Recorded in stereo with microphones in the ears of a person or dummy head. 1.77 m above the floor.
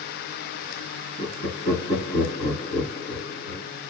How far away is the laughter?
About 2.5 m.